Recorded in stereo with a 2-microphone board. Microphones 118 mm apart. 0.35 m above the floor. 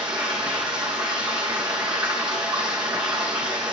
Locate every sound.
0.0 s running water: 5° right (ahead or behind), 3.5 m